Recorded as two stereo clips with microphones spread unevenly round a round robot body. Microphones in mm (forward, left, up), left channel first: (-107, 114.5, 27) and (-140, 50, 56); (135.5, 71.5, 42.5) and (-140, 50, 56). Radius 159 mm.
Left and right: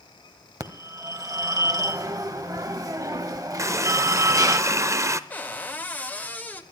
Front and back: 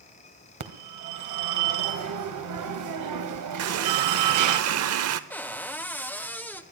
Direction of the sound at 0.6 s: 165° right.